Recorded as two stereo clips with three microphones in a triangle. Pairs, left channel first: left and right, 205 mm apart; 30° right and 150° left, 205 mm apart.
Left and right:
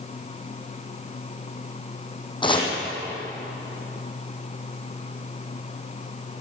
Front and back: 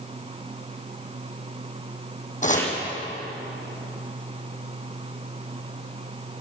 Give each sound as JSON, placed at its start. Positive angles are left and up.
{"t": 2.4, "sound": "chopping", "azimuth_deg": 20, "distance_m": 5.0}